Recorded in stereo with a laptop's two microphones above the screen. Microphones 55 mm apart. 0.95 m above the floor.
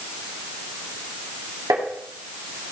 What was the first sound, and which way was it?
Tapping, 75° right (ahead or behind).